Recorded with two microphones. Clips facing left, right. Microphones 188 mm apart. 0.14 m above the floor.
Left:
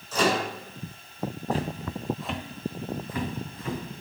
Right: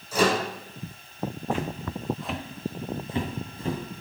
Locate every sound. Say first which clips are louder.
0.1 s a microwave: right 2 dB; 15° right (ahead or behind), 6 m
1.5 s footsteps: left 1 dB; 40° left (ahead or behind), 1.5 m; by 3.8 s 35° right (ahead or behind), 3.5 m